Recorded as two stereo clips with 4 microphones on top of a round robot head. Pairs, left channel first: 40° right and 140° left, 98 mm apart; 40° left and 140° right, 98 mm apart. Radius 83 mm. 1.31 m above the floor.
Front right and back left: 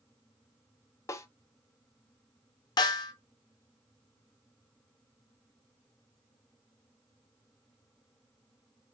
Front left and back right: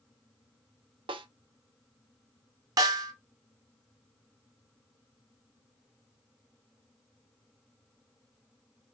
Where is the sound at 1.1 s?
105° right, 0.7 m.